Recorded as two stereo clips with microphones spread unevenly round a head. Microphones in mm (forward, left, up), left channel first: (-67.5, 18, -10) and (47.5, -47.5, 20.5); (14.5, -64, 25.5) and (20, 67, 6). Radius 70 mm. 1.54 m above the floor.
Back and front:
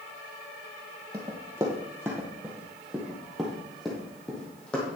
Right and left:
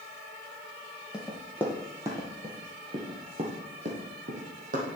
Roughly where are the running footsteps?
Ahead.